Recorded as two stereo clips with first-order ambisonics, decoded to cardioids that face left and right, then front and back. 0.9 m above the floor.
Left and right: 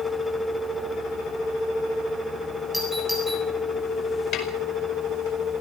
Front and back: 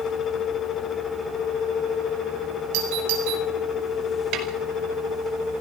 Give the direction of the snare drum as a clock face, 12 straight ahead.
7 o'clock.